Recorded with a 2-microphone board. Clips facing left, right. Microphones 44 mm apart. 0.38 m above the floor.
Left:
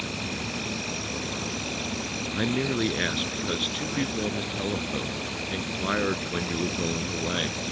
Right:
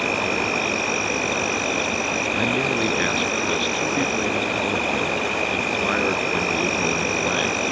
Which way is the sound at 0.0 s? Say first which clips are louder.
Right 11 dB; 60° right (ahead or behind).